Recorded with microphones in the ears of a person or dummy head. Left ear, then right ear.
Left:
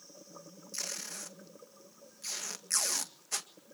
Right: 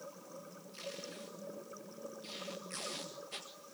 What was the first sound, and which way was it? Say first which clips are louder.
Tape being pulled: left 6 dB; 50° left (ahead or behind).